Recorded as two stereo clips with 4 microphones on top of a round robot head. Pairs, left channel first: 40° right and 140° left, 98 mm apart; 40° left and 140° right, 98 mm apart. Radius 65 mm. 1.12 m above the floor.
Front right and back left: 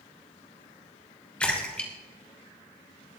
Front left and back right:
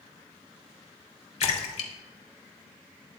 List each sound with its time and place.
1.4 s a splash: 40° left, 3 m